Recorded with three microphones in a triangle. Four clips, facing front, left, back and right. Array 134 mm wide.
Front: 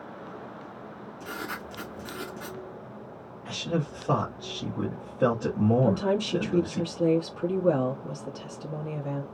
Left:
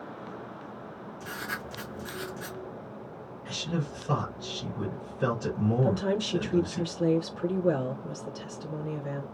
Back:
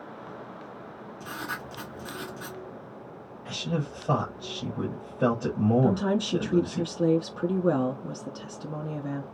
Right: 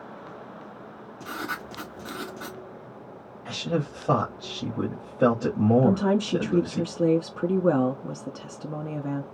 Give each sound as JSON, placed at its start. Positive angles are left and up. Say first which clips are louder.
{"t": 1.2, "sound": "writing", "louder": "right 4 dB, even", "azimuth_deg": -95, "distance_m": 3.0}
{"t": 3.5, "sound": "a man speaking", "louder": "right 6 dB, front 1 dB", "azimuth_deg": -90, "distance_m": 2.5}
{"t": 5.8, "sound": "a woman speaking", "louder": "right 5 dB, even", "azimuth_deg": -105, "distance_m": 1.8}